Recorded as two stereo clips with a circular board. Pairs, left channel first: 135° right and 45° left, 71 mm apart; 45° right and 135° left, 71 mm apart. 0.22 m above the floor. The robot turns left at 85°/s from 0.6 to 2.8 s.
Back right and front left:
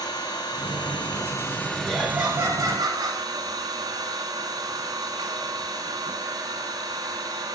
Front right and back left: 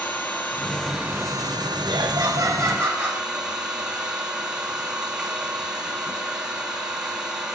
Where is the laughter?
150° left, 6 m; by 3.2 s 70° left, 6 m.